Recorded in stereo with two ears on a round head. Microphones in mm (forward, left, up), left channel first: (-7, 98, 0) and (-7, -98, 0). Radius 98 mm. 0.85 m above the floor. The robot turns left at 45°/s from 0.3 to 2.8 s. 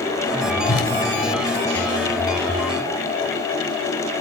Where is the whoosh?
55° left (ahead or behind), 2 m; by 0.9 s 65° left (ahead or behind), 2 m.